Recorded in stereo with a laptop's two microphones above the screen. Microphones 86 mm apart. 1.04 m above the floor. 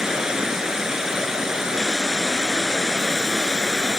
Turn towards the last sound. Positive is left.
turn(degrees=-5)  # may be behind; listen again after turning